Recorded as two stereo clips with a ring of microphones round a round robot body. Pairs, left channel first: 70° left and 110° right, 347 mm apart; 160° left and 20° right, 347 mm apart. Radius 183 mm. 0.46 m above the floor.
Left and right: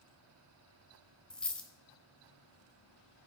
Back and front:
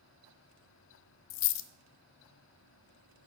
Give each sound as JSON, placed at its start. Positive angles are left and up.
{"t": 1.3, "sound": "a dropped coin", "azimuth_deg": 155, "distance_m": 0.5}